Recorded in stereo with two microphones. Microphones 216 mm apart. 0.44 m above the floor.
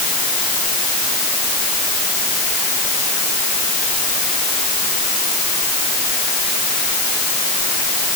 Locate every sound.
Only background noise.